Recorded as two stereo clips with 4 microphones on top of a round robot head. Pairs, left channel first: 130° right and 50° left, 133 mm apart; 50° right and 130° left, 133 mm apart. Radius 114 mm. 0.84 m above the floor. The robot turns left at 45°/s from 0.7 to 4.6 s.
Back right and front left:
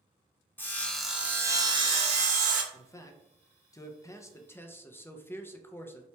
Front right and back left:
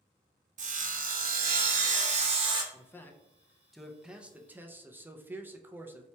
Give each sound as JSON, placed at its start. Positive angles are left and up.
{"t": 0.6, "sound": "sawing", "azimuth_deg": 155, "distance_m": 0.5}
{"t": 2.7, "sound": "a man speaking", "azimuth_deg": -95, "distance_m": 0.5}